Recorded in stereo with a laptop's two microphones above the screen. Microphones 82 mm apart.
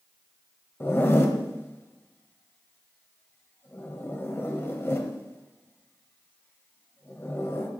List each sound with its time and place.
0.8 s a zipper: 30° left (ahead or behind), 0.9 m